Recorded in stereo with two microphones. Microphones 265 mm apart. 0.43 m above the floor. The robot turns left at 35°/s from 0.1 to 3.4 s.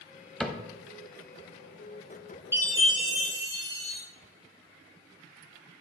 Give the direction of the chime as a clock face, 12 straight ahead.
12 o'clock.